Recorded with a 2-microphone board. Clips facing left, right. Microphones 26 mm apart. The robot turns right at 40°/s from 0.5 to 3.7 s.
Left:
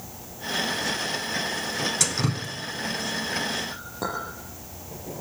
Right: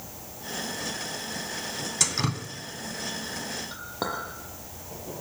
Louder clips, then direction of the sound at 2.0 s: Left 1 dB; 5° right (ahead or behind).